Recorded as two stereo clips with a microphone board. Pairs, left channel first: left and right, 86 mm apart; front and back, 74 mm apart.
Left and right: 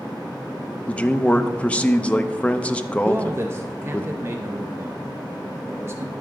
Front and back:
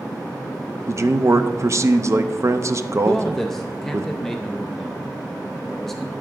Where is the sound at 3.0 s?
85° right, 0.5 m.